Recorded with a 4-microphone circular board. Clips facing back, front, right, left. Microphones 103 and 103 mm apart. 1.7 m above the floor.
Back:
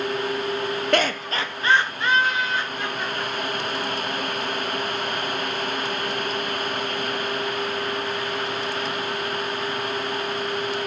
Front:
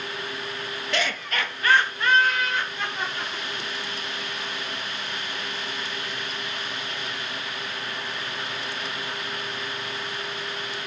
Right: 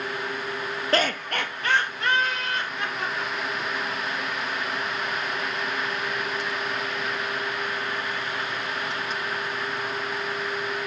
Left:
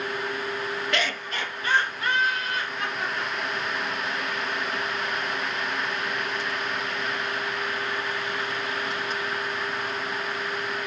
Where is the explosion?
No explosion in this recording.